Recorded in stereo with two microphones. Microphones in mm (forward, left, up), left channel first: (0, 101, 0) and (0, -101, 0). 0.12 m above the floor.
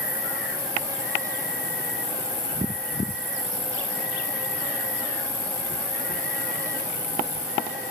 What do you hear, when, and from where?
0.0 s an insect: 65° right (ahead or behind), 10 m